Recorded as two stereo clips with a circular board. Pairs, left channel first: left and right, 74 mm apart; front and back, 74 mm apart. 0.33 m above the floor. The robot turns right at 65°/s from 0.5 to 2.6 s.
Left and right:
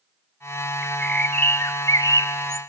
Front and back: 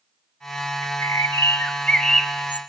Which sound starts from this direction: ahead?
A bird, at 0.8 s.